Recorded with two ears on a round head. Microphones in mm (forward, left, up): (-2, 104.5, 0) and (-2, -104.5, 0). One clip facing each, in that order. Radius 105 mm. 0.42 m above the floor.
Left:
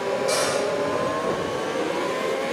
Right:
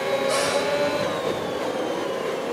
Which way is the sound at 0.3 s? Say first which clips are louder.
Even; 70° left (ahead or behind).